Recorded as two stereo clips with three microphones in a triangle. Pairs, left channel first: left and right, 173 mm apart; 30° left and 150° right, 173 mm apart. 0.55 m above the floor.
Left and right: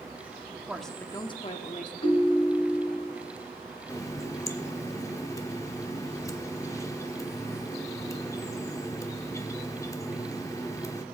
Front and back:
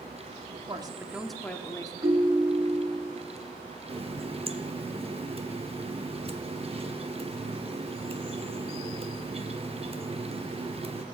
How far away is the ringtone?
About 1.4 m.